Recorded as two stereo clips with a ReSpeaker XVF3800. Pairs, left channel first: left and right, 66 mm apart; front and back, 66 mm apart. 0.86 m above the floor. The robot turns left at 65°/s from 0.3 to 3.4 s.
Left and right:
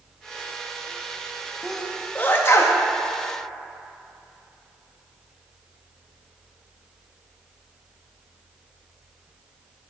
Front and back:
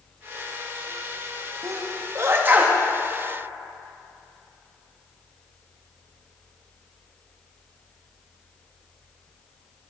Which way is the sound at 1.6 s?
175° right.